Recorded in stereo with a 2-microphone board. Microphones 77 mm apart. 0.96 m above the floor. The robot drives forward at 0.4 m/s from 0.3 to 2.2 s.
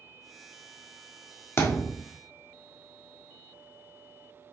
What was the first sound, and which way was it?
A thud, 35° left (ahead or behind).